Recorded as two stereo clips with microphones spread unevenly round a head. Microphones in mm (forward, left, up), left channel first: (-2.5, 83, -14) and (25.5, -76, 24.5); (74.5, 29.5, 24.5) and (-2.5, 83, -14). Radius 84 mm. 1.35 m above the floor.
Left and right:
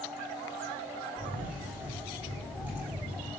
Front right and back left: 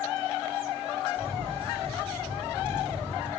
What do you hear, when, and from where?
1.2 s a camera shutter: 160° right, 5.5 m